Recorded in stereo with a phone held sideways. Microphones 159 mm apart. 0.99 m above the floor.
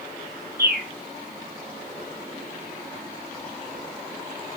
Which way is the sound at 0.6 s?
75° right (ahead or behind).